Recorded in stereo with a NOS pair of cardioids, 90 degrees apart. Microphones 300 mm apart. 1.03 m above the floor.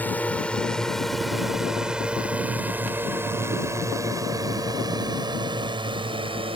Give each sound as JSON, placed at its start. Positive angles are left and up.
{"t": 0.0, "sound": "a drone", "azimuth_deg": 5}